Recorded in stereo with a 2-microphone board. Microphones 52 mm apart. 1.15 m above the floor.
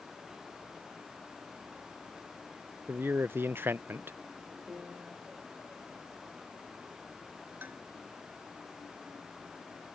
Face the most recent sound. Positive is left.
turn(degrees=-40)  # may be behind; listen again after turning